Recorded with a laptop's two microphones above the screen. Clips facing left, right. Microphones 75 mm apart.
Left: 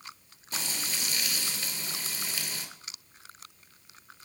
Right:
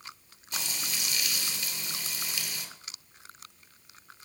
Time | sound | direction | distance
0.5 | frying | 35° left (ahead or behind) | 2.5 m